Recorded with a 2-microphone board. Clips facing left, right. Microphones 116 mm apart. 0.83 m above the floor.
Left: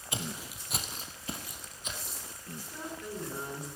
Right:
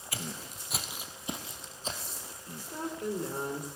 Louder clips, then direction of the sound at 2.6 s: Right 6 dB; 55° right (ahead or behind).